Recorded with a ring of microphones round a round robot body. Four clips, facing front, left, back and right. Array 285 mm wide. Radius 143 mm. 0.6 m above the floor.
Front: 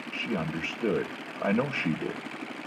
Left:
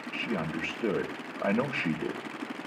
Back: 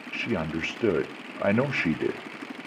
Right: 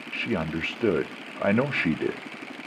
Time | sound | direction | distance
0.1 | a man speaking | 125° right | 0.8 m